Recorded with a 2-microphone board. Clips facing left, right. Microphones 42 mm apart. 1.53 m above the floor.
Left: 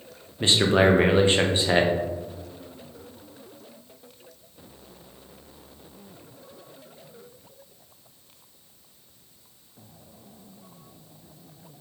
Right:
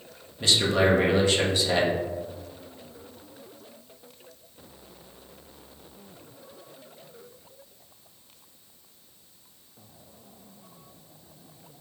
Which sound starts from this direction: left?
A man speaking, at 0.4 s.